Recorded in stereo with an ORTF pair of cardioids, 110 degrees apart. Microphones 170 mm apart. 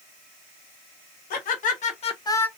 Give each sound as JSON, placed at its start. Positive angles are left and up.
{"t": 1.3, "sound": "laughter", "azimuth_deg": 55, "distance_m": 2.0}